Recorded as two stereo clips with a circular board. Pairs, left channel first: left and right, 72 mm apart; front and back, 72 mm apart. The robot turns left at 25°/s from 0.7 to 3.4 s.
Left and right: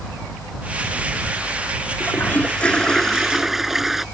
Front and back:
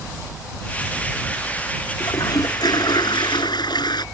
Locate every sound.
2.0 s a toilet flushing: 30° left; by 4.0 s 5° right